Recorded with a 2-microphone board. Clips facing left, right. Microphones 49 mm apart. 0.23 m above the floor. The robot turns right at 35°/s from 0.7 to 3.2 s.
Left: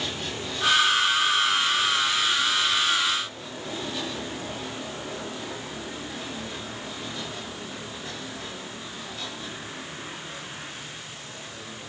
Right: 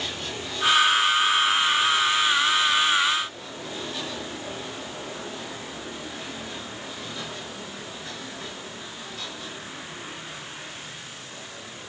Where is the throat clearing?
No throat clearing in this recording.